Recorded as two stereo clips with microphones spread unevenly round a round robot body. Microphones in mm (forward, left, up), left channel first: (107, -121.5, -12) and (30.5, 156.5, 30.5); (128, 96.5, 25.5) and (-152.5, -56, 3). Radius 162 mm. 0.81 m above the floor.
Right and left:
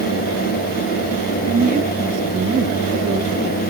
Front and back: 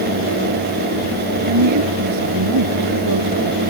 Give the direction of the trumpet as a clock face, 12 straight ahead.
No trumpet in this recording.